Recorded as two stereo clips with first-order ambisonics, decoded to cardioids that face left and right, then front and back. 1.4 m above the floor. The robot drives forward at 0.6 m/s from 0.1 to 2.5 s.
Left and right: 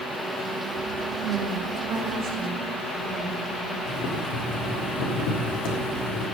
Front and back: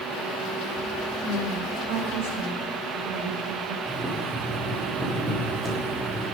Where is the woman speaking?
155° right, 3 m; by 3.8 s 160° right, 3.5 m.